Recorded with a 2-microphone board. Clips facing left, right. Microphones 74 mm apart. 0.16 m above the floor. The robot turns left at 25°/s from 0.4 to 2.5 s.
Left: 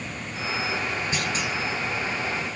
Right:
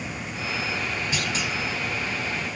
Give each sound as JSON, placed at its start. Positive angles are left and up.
{"t": 1.1, "sound": "a clunk", "side_deg": 35, "distance_m": 2.0}